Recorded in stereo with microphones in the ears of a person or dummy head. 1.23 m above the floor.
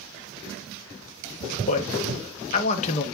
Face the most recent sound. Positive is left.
turn(degrees=35)  # may be behind; listen again after turning